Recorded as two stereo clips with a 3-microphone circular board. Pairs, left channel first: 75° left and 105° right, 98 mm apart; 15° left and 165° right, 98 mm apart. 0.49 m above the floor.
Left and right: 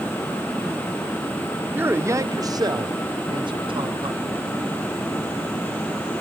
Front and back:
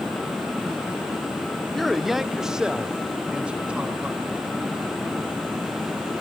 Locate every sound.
1.7 s a man speaking: 70° right, 0.9 m; by 4.5 s 90° right, 1.9 m